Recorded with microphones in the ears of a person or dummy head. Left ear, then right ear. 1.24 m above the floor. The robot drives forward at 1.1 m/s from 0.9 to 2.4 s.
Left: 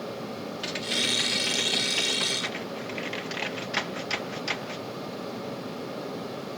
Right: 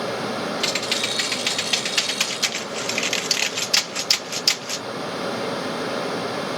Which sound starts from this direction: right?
Typing on a keyboard, at 0.6 s.